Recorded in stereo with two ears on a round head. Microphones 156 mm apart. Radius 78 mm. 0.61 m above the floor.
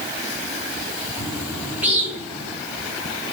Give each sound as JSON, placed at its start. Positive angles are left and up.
{"t": 1.2, "sound": "a bird", "side_deg": -10, "distance_m": 3.0}